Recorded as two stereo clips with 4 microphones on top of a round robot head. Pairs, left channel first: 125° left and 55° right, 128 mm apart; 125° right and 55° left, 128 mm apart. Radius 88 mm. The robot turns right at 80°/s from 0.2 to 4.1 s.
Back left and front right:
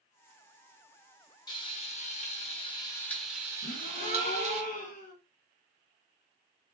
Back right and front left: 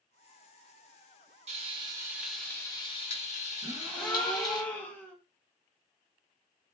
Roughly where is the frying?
Left.